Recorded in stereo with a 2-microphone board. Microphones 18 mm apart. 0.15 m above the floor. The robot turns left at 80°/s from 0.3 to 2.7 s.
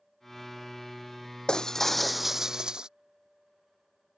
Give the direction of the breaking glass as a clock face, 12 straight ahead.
10 o'clock.